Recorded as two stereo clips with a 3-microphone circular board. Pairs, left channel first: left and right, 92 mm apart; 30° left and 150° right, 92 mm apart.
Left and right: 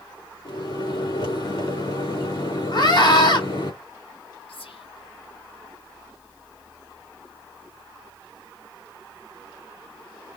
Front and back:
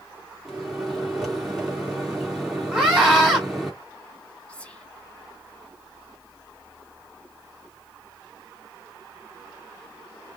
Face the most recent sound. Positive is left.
turn(degrees=105)